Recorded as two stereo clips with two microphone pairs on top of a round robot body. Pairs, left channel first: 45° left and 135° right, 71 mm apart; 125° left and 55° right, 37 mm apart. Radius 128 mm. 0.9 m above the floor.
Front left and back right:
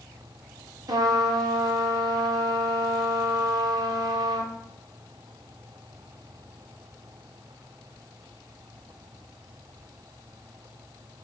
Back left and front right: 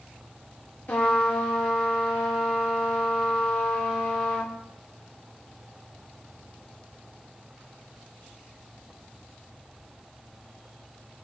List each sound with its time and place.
0.9 s a trumpet: straight behind, 0.7 m